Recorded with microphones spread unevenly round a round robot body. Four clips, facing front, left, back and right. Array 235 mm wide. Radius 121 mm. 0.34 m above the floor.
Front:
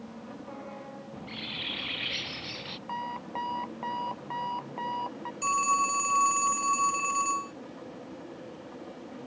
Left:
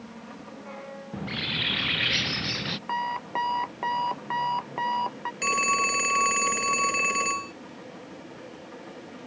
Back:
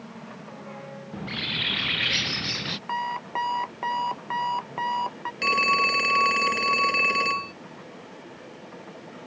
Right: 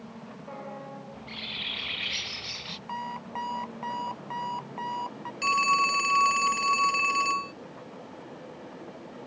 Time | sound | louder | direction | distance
1.1 | a bird | left 8 dB, back 7 dB | 125° left | ?
2.9 | an alarm clock | left 5 dB, back 6 dB | 125° left | ?
5.4 | a phone ringing | right 2 dB, back 3 dB | 155° left | ?